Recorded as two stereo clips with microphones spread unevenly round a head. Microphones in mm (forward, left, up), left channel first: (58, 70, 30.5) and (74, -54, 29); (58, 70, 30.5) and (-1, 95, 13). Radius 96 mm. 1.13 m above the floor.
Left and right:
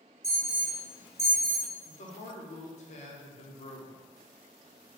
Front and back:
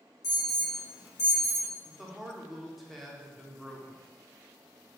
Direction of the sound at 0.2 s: 35° right.